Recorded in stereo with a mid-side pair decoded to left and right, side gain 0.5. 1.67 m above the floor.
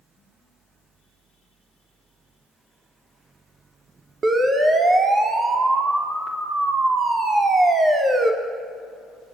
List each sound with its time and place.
0.0 s a fan: 30° right, 0.8 m
4.2 s a siren: 35° right, 3.5 m